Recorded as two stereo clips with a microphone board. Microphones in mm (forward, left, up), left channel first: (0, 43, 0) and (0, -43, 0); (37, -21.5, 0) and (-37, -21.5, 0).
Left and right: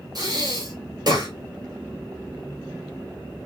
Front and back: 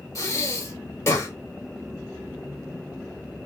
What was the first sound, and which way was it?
Breathing, 50° right.